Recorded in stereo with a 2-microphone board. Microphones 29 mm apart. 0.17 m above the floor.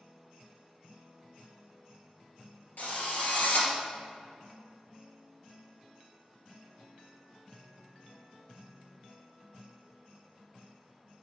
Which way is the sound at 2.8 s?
70° left (ahead or behind).